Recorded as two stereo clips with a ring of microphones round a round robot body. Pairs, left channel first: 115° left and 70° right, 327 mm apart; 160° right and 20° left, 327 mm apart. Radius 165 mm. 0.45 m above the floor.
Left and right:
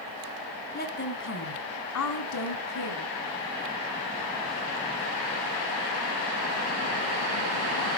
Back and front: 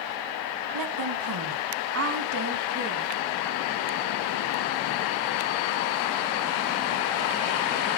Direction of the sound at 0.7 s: 50° left.